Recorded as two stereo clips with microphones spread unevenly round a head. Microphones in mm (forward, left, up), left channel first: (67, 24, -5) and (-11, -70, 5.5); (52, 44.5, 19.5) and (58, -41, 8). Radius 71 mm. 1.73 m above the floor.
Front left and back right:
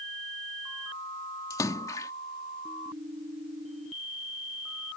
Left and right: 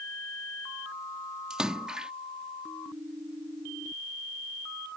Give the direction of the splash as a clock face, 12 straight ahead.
12 o'clock.